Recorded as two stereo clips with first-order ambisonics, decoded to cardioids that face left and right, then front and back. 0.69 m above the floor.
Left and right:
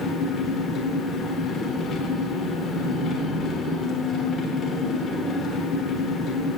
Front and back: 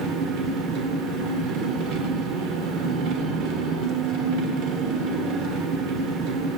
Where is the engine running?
150° left, 1.1 m.